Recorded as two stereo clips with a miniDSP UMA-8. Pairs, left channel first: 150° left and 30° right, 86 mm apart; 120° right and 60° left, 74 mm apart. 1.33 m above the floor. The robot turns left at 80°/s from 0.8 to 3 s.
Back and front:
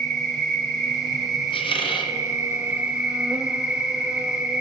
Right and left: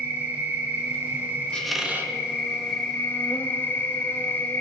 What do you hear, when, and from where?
0.0 s an insect: 90° left, 1.0 m; by 4.6 s 85° right, 1.0 m
1.5 s a squeak: 165° left, 1.1 m; by 2.1 s 115° left, 1.1 m